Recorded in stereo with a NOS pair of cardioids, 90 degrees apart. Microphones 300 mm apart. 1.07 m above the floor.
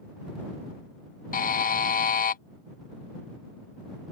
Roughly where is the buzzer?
Ahead left.